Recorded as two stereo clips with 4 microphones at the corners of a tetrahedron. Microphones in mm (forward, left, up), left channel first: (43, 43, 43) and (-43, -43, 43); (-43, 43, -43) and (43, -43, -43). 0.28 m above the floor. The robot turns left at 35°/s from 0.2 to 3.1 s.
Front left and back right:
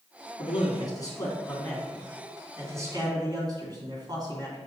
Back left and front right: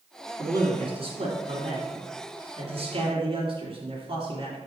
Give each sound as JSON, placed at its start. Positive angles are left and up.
{"t": 0.4, "sound": "a man speaking", "azimuth_deg": 10, "distance_m": 2.5}